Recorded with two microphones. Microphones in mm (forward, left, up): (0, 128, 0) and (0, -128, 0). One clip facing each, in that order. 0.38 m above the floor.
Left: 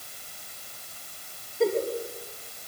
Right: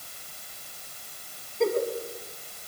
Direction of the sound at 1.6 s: 5° left (ahead or behind).